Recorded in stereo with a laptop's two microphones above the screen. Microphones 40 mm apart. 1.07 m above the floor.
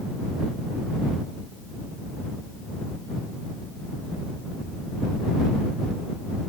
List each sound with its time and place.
Only background noise.